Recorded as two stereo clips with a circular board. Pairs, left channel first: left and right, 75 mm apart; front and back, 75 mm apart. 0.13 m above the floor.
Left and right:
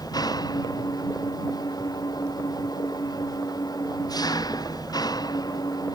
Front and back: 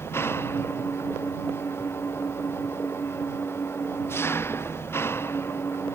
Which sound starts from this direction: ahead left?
An engine running, at 0.0 s.